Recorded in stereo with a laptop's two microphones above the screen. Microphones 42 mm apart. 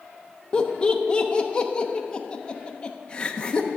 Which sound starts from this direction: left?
Laughter, at 0.5 s.